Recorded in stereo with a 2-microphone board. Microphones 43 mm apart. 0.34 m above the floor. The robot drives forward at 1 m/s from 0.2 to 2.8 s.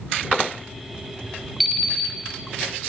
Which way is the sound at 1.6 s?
Centre (ahead or behind).